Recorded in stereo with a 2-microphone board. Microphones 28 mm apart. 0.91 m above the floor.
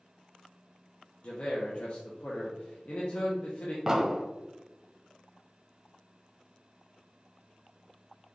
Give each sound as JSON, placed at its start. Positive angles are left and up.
{"t": 1.2, "sound": "a man speaking", "side_deg": 50, "distance_m": 0.9}
{"t": 3.9, "sound": "an explosion", "side_deg": -20, "distance_m": 0.7}